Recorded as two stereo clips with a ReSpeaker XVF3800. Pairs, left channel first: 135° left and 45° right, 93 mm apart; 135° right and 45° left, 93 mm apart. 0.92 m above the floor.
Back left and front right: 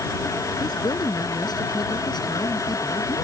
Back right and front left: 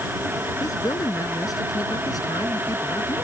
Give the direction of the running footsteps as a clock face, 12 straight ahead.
I don't hear running footsteps.